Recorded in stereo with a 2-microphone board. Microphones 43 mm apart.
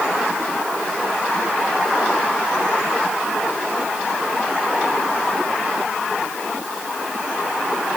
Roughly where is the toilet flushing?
No toilet flushing in this recording.